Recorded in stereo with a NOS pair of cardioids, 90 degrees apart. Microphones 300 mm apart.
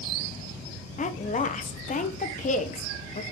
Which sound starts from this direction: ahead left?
A woman speaking, at 1.0 s.